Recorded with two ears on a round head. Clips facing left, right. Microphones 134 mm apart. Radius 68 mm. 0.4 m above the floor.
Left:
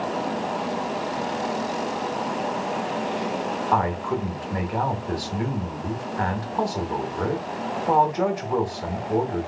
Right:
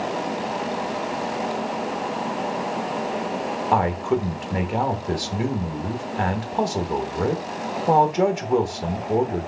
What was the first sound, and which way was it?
A man speaking, 25° right (ahead or behind).